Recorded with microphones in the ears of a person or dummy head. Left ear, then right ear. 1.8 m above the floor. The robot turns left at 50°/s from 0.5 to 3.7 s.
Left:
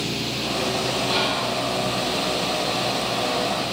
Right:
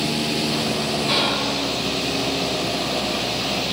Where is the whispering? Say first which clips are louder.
Right 4 dB; 45° right (ahead or behind), 1.4 m; by 1.5 s 65° right (ahead or behind), 1.4 m.